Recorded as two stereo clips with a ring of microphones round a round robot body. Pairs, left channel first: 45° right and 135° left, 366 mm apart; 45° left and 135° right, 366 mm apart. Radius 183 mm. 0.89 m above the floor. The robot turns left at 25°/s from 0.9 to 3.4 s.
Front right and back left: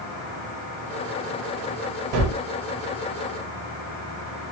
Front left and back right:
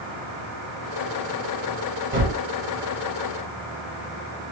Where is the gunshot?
160° left, 1.3 m; by 2.4 s 155° left, 1.3 m.